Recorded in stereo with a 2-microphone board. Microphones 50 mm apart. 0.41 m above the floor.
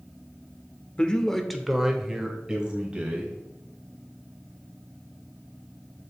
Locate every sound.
1.0 s a man speaking: 20° left (ahead or behind), 0.7 m; by 3.4 s 20° right (ahead or behind), 2 m